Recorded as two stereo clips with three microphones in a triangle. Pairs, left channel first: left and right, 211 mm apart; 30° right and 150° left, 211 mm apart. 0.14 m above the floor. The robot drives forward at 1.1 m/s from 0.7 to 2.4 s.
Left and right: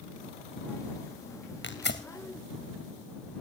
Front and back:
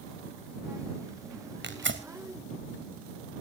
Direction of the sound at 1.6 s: 120° left.